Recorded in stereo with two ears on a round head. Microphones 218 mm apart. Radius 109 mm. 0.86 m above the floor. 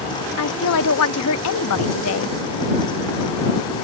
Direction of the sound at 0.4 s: 65° left (ahead or behind).